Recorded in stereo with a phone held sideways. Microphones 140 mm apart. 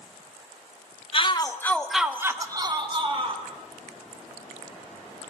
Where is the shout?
40° left (ahead or behind), 0.7 m; by 3.4 s 45° right (ahead or behind), 1.4 m.